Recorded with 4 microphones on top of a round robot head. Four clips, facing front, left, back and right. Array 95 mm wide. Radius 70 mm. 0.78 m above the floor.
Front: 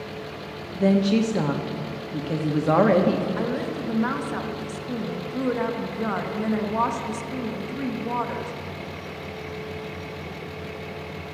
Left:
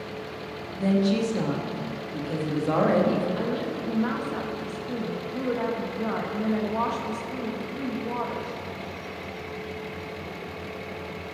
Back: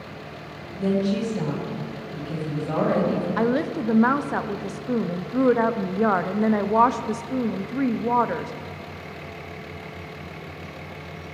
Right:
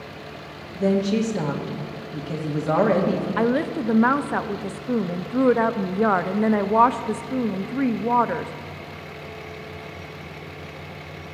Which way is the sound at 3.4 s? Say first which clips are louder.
Right 7 dB, back 4 dB; 120° right.